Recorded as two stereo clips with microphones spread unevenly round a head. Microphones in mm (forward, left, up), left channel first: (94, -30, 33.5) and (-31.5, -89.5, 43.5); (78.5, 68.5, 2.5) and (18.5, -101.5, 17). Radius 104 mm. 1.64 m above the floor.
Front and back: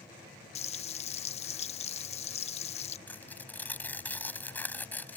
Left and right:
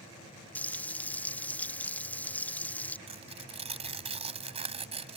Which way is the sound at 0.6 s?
15° right.